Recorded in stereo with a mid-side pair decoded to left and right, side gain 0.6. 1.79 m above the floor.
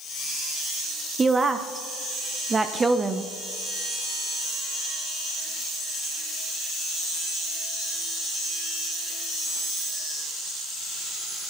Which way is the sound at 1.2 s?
20° right.